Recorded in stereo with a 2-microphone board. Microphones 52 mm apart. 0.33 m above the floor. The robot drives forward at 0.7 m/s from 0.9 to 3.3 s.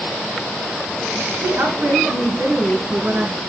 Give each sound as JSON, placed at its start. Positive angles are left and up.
{"t": 1.4, "sound": "a woman speaking", "side_deg": -60, "distance_m": 3.5}